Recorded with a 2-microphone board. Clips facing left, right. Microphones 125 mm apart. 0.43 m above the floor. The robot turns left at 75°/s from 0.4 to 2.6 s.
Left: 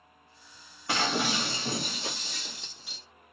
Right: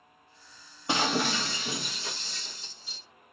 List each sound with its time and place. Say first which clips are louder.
0.9 s breaking glass: right 1 dB; 155° right, 1.1 m; by 3.0 s 75° left, 1.1 m